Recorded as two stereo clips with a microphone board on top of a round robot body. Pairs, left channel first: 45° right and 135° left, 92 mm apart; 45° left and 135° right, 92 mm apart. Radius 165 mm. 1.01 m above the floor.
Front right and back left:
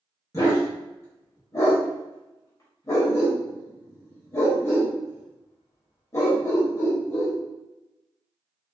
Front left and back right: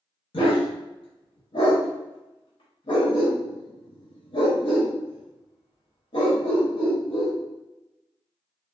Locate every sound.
0.3 s a dog barking: 15° left, 0.6 m